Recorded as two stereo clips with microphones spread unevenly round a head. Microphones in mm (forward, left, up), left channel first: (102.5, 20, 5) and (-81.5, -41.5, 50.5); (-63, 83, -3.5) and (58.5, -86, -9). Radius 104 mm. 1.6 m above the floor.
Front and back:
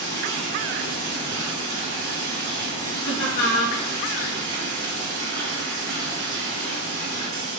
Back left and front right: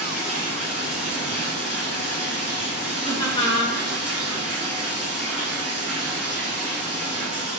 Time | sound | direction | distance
0.0 | running water | 140° right | 3.5 m
3.0 | laughter | 60° left | 2.5 m